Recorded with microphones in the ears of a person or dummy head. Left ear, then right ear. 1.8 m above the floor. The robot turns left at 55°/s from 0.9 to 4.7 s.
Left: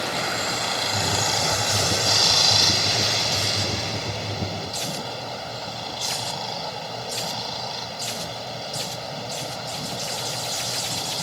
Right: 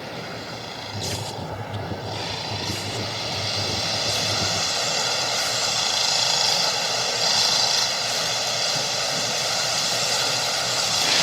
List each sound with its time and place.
0.0 s running water: 140° left; by 11.2 s 70° right